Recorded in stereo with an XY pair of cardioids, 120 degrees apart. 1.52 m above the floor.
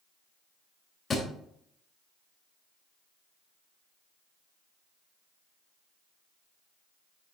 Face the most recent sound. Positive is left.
turn(degrees=30)